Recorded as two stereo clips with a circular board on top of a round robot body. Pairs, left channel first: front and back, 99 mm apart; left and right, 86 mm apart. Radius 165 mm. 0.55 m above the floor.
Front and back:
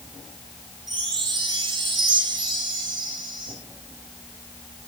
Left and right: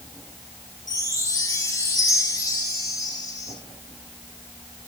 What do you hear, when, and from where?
0.9 s a chime: 140° left, 6 m